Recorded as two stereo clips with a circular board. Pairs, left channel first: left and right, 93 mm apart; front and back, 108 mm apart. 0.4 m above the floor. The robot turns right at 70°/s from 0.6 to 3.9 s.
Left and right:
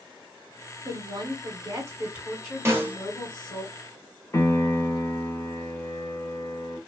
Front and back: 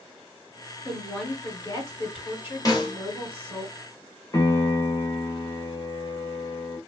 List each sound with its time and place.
0.8 s a woman speaking: 105° right, 1.9 m; by 3.6 s 90° left, 1.9 m
2.6 s a snare drum: 40° right, 0.9 m; by 3.0 s 20° right, 0.9 m
4.3 s a piano: 40° left, 0.9 m